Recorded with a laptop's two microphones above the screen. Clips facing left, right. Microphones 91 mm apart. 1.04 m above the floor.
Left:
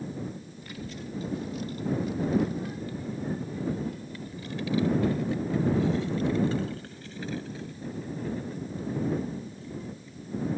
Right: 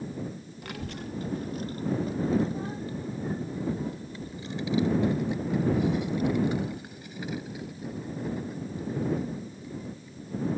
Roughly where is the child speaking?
Right.